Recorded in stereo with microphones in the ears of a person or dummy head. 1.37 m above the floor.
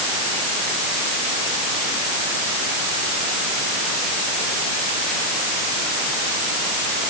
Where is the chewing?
No chewing in this recording.